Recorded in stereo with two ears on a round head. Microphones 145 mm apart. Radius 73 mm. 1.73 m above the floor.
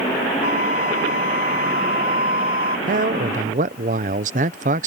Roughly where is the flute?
Left.